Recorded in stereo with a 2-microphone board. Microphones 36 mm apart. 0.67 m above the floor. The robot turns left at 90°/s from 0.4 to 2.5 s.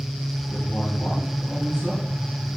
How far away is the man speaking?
About 5 m.